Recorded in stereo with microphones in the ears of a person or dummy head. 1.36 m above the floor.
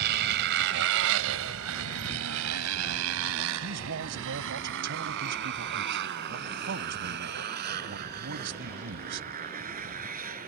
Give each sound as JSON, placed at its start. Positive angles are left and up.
{"t": 0.0, "sound": "a motorcycle", "side_deg": -55}
{"t": 3.6, "sound": "a man speaking", "side_deg": -60}